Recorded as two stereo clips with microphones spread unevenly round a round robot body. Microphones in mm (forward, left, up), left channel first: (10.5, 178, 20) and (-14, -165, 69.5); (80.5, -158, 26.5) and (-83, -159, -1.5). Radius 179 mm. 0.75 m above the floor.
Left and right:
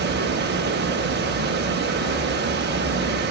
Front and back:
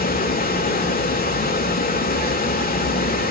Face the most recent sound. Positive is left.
turn(degrees=-30)